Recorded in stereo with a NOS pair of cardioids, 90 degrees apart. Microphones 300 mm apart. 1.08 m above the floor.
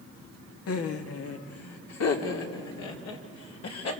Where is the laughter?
55° left, 1.8 m; by 3.9 s 65° left, 4.5 m.